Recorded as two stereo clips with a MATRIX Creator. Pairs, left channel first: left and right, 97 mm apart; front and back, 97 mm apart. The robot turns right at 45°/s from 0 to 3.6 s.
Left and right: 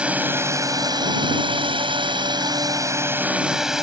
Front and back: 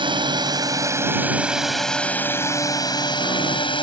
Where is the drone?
170° right; by 3.8 s 5° right.